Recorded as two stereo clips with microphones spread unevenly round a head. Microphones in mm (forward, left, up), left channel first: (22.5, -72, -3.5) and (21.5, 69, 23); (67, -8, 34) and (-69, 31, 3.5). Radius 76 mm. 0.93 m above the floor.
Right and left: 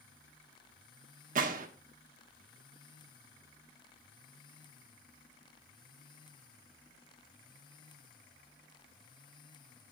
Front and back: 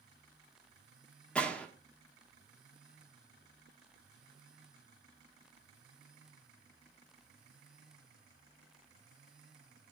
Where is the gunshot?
75° left, 1.0 m.